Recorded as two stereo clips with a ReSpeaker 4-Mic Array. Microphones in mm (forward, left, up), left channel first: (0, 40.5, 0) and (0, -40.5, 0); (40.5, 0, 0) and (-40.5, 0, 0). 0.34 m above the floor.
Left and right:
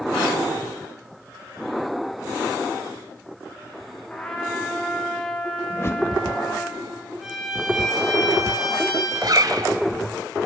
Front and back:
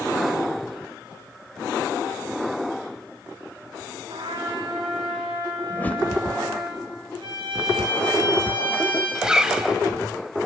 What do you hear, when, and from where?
4.1 s a trumpet: 170° left, 5 m
5.7 s a whoosh: 55° left, 1.6 m
7.2 s a violin: straight behind, 7.5 m
9.2 s a zipper: 100° right, 1.7 m